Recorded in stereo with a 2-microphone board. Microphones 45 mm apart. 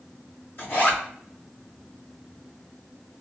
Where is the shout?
I don't hear a shout.